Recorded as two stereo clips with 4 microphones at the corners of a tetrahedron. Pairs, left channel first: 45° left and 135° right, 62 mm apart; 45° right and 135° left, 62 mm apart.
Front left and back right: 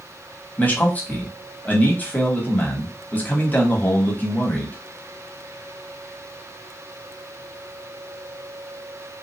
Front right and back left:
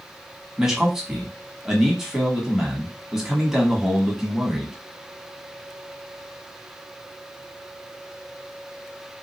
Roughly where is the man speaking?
Ahead left.